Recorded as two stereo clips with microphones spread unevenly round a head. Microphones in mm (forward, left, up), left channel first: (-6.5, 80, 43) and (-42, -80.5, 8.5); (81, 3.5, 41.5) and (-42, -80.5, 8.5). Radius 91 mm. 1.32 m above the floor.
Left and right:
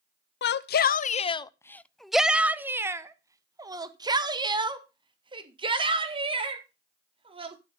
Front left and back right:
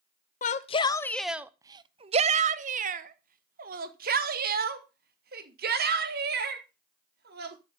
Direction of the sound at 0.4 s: 75° left.